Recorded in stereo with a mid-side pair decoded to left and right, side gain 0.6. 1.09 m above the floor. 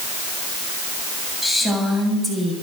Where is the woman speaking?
Straight ahead, 7.5 m; by 2.5 s 15° right, 7 m.